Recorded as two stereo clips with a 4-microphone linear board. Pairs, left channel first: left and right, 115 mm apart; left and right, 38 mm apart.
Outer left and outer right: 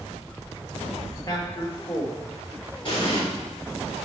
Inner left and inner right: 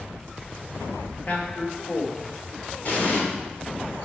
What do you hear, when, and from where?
1.3 s a man speaking: 35° left (ahead or behind), 1.5 m
2.9 s an explosion: 45° left (ahead or behind), 3 m